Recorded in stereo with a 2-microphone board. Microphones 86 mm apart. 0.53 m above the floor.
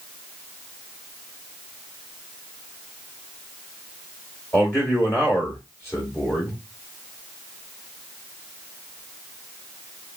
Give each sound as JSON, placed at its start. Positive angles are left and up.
{"t": 4.5, "sound": "a man speaking", "side_deg": 30, "distance_m": 1.3}